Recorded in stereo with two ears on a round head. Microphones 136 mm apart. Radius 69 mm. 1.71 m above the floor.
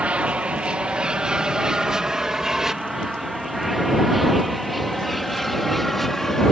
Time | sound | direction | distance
0.0 | an aircraft | 10° right (ahead or behind) | ?